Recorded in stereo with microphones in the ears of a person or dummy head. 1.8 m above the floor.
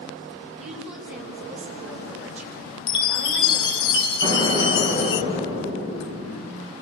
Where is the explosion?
35° right (ahead or behind), 4.5 m.